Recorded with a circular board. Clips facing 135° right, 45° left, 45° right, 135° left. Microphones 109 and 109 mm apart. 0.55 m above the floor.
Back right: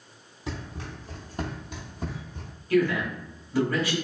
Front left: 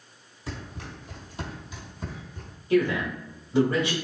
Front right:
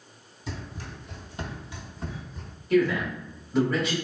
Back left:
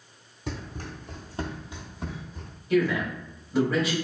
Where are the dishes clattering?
No dishes clattering in this recording.